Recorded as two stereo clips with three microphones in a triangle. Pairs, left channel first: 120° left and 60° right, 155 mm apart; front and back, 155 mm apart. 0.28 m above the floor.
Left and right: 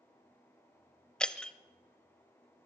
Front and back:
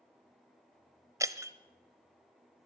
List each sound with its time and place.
1.2 s breaking glass: 165° right, 0.6 m